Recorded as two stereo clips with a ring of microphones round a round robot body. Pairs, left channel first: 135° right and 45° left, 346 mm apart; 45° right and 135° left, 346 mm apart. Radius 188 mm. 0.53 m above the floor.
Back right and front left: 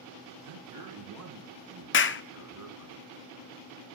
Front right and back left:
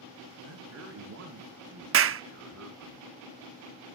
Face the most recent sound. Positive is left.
turn(degrees=175)